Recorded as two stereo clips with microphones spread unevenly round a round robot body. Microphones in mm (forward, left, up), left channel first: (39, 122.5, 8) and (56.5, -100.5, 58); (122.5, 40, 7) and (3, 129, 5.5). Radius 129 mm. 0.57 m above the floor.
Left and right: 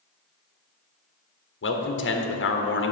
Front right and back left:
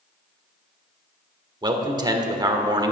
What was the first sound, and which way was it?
A man speaking, 85° left.